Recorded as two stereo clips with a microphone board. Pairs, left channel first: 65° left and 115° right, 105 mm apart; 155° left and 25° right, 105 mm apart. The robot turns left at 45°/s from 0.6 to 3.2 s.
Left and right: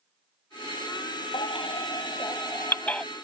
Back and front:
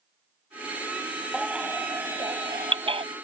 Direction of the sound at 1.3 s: 65° left.